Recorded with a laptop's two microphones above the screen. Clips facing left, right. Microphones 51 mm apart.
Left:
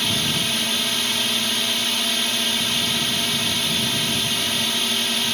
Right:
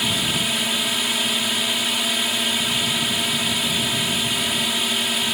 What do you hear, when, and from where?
0.0 s a drone: 10° right (ahead or behind)